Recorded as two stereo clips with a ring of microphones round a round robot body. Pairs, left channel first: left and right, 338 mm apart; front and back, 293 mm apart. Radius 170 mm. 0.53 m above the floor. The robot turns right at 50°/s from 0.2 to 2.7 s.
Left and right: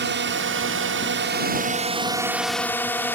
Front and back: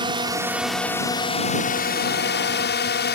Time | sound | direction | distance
0.0 | a drone | 115° right | ?